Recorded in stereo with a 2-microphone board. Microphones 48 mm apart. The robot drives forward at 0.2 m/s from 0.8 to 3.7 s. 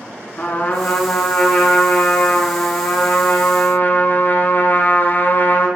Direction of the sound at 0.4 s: 40° left (ahead or behind).